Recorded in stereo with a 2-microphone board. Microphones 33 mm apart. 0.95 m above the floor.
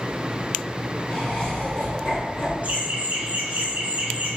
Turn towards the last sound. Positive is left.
turn(degrees=-55)  # may be behind; listen again after turning